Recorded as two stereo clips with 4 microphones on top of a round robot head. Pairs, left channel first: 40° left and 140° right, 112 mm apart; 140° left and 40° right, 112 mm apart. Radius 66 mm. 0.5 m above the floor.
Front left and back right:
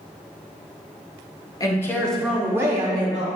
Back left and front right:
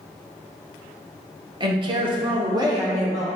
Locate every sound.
1.6 s a woman speaking: 10° right, 1.3 m; by 3.3 s 105° right, 1.8 m